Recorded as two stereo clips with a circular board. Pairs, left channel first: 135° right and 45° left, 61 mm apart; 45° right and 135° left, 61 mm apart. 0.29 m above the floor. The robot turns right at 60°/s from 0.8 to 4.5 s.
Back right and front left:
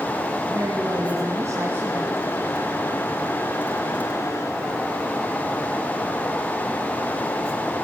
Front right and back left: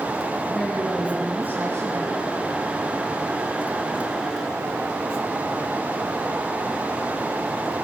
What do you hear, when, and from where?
0.5 s a woman speaking: 40° left, 2 m; by 2.3 s 130° left, 2 m